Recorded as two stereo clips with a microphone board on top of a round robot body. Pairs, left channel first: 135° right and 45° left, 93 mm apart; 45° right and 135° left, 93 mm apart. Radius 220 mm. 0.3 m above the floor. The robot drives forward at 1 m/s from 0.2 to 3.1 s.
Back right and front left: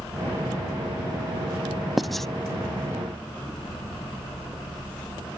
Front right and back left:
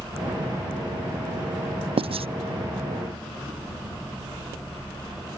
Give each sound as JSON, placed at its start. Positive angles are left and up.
{"t": 2.0, "sound": "writing", "azimuth_deg": 135}